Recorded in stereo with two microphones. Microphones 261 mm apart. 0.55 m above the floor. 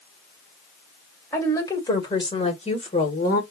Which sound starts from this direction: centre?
A woman speaking, at 1.3 s.